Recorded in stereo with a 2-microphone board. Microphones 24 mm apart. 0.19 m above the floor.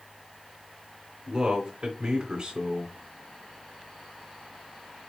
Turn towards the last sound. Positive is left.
turn(degrees=-35)  # may be behind; listen again after turning